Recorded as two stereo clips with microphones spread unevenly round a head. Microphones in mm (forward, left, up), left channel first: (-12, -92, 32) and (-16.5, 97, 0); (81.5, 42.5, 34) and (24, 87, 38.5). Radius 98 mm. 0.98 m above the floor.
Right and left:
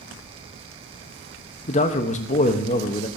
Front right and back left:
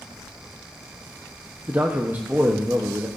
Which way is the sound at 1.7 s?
145° right.